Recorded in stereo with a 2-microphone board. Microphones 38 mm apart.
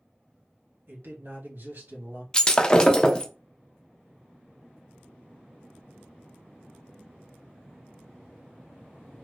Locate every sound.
0.9 s a man speaking: 60° right (ahead or behind), 1.5 m
2.3 s breaking glass: 20° left (ahead or behind), 0.5 m